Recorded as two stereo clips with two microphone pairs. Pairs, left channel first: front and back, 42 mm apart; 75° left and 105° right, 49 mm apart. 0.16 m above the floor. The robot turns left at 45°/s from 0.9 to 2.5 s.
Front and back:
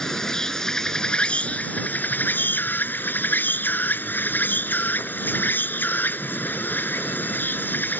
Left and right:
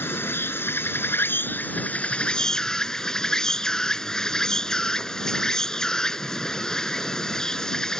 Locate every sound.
0.0 s an insect: 75° left; by 8.0 s straight ahead